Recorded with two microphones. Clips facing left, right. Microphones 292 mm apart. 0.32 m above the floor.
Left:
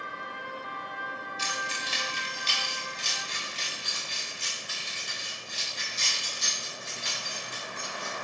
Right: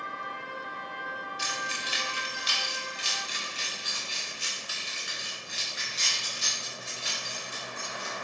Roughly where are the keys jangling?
Centre.